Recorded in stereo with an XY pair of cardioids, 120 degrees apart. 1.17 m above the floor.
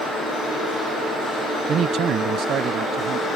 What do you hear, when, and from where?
1.7 s a man speaking: 50° right